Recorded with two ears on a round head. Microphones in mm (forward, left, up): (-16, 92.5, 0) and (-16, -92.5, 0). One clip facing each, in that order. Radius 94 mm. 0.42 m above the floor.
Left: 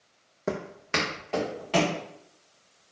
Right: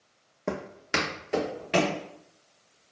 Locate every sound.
0.5 s footsteps: 5° left (ahead or behind), 0.8 m; by 2.0 s 20° right (ahead or behind), 2 m